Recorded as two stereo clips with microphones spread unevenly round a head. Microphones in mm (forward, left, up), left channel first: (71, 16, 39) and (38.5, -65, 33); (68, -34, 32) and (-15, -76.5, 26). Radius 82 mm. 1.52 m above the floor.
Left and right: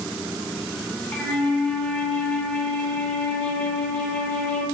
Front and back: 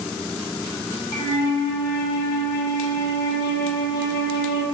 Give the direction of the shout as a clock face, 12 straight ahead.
No shout in this recording.